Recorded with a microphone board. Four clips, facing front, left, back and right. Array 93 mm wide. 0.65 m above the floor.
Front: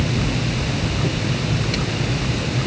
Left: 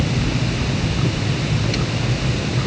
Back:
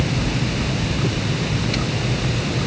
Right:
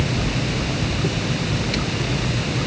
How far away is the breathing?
No breathing in this recording.